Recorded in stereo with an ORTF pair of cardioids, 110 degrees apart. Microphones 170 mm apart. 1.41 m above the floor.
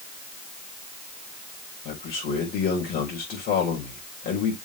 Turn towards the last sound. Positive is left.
turn(degrees=65)